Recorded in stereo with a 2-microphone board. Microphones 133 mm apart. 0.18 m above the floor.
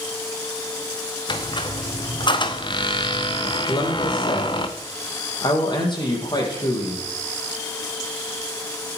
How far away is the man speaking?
About 5.5 m.